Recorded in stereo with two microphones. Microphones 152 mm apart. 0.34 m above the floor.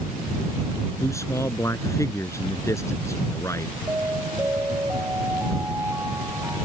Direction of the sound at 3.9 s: 15° right (ahead or behind).